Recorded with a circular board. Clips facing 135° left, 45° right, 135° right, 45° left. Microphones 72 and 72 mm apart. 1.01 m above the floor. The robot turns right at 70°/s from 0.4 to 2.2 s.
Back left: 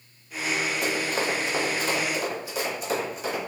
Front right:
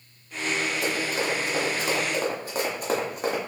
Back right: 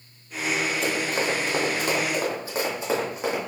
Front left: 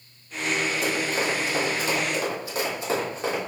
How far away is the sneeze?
I don't hear a sneeze.